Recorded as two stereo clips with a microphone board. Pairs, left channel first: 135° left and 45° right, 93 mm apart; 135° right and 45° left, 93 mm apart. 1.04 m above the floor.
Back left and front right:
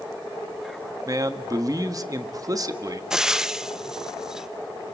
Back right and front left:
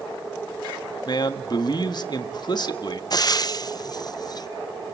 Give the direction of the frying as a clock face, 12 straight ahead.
4 o'clock.